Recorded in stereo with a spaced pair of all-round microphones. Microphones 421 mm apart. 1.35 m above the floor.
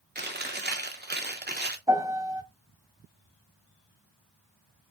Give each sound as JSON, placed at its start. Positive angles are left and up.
{"t": 0.1, "sound": "chewing", "side_deg": -25, "distance_m": 0.8}
{"t": 1.9, "sound": "a piano", "side_deg": -10, "distance_m": 1.1}